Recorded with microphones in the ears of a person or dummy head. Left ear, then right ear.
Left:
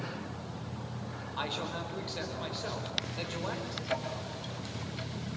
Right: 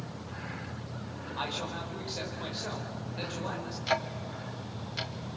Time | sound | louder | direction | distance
1.4 | a man speaking | even | 10° left (ahead or behind) | 4.5 m
3.9 | ticking | right 6 dB | 35° right (ahead or behind) | 1.3 m